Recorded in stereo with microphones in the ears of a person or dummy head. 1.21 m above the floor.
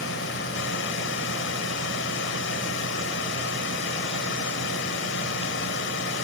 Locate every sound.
0.0 s a drone: 65° left (ahead or behind)